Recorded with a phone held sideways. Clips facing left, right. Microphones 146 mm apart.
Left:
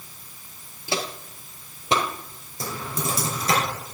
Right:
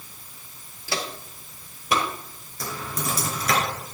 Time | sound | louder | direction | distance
0.9 | footsteps | left 2 dB | 20° left (ahead or behind) | 1.2 m
2.6 | typing on a keyboard | left 1 dB | 30° left (ahead or behind) | 4 m